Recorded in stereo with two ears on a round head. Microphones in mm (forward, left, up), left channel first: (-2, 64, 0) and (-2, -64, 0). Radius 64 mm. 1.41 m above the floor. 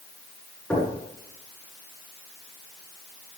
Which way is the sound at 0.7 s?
10° left (ahead or behind).